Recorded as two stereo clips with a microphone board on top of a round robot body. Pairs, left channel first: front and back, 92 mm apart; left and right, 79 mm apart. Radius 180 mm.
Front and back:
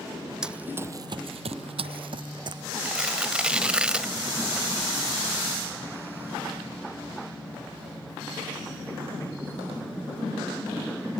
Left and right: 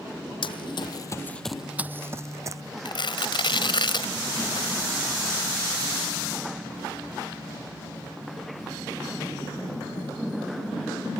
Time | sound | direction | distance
0.4 | running footsteps | 100° left | ?
2.9 | tearing paper | 100° left | ?